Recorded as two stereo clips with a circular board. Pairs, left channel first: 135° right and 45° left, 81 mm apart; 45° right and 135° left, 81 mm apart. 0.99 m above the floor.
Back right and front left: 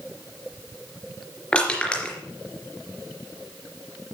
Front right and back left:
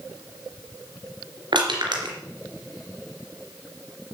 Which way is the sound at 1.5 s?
145° left.